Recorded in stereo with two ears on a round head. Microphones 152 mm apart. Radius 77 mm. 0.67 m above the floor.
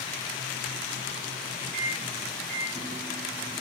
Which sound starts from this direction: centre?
A microwave, at 1.7 s.